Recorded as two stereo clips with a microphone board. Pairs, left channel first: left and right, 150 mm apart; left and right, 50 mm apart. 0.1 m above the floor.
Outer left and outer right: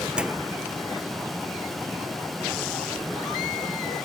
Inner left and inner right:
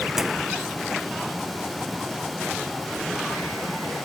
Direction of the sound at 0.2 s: 5° right (ahead or behind).